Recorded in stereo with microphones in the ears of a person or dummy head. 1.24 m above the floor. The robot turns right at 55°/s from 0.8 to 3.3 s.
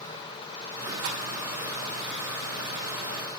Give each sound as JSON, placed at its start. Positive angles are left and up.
{"t": 1.0, "sound": "a rattle", "side_deg": -55, "distance_m": 1.6}